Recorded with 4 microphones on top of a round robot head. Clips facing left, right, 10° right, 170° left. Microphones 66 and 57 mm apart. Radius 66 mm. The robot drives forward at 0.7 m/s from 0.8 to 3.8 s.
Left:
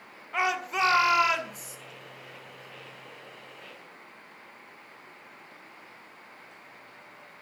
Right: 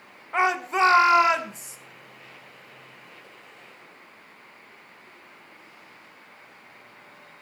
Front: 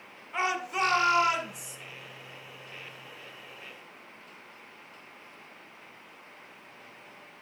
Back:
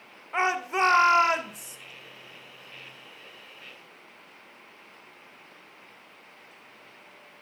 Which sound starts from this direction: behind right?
A shout, at 0.3 s.